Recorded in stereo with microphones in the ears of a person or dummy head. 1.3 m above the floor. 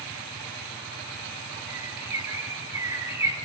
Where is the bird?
15° right (ahead or behind), 7 m.